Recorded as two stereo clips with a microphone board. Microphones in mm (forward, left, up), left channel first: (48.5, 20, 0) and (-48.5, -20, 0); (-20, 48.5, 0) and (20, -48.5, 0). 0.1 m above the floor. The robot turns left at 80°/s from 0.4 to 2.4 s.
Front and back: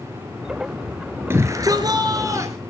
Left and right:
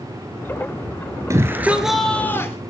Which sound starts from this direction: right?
A shout, at 1.3 s.